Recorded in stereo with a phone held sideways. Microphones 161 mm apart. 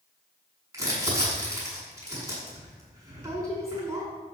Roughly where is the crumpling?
Right.